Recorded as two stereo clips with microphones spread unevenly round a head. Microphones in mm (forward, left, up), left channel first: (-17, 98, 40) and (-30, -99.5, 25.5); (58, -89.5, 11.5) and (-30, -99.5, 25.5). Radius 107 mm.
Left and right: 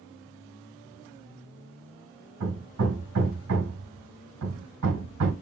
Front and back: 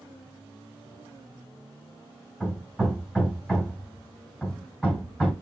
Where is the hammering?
80° right, 2 m.